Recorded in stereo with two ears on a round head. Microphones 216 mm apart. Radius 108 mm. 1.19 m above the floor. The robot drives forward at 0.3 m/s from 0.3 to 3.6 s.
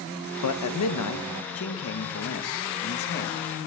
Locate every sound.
0.4 s a man speaking: 85° left, 0.9 m; by 3.4 s 45° left (ahead or behind), 1.3 m